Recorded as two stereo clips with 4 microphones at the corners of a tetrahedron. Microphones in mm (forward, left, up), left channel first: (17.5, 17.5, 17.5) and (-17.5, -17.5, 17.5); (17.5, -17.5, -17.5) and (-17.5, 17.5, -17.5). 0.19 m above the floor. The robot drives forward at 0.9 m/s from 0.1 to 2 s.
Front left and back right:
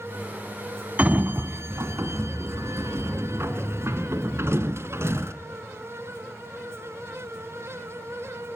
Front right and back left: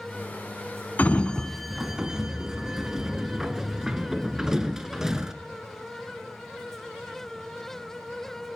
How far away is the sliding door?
About 0.8 m.